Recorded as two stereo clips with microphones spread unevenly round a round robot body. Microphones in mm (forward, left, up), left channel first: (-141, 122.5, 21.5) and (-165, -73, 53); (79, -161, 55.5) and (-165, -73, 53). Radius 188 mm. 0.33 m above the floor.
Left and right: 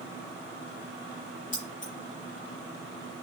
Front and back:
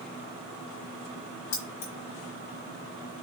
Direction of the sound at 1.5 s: 10° left.